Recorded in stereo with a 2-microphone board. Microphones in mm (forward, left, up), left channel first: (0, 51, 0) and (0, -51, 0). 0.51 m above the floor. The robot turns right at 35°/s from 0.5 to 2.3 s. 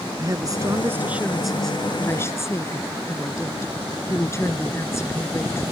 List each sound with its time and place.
0.2 s a woman speaking: 35° right; by 5.6 s 25° left